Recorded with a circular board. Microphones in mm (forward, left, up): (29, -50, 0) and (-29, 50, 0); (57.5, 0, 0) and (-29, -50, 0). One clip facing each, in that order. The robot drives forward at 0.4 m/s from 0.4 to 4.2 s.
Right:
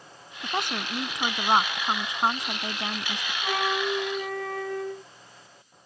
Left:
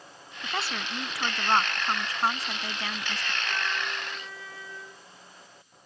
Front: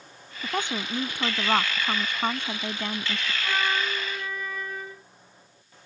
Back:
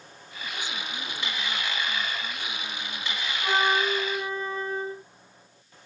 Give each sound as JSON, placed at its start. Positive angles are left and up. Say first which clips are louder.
{"t": 0.4, "sound": "a woman speaking", "louder": "right 3 dB, front 7 dB", "azimuth_deg": 10}
{"t": 3.4, "sound": "a flute", "louder": "right 9 dB, back 4 dB", "azimuth_deg": -90}